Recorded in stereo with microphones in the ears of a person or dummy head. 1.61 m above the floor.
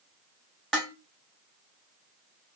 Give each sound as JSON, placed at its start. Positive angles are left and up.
{"t": 0.7, "sound": "dishes clattering", "side_deg": 5, "distance_m": 1.3}